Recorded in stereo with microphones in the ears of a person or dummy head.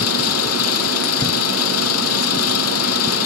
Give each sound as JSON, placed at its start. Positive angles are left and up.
{"t": 0.0, "sound": "an engine running", "side_deg": 85}